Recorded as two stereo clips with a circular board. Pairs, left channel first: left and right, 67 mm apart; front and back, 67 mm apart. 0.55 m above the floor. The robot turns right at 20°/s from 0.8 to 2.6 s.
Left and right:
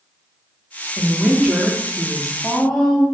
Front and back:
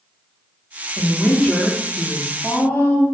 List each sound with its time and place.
1.0 s a woman speaking: 30° right, 0.6 m; by 3.0 s 5° left, 0.6 m